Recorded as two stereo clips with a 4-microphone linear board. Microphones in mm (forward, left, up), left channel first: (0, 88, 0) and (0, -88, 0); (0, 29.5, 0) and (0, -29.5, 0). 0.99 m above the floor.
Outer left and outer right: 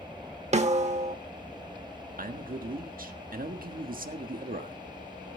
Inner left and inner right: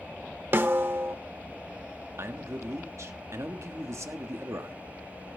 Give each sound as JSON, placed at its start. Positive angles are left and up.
{"t": 0.5, "sound": "a snare drum", "side_deg": -40, "distance_m": 1.1}
{"t": 2.2, "sound": "a man speaking", "side_deg": -55, "distance_m": 1.4}